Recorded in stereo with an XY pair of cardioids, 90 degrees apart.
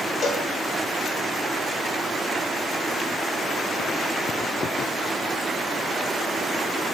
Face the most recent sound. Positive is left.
turn(degrees=50)